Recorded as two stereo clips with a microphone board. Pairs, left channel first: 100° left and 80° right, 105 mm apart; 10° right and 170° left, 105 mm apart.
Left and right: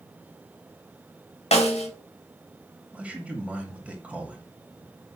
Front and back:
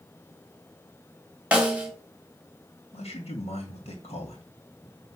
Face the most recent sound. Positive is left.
turn(degrees=0)